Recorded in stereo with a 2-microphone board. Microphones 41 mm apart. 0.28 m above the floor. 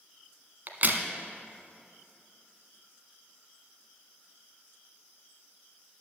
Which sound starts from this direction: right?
A crack, at 0.7 s.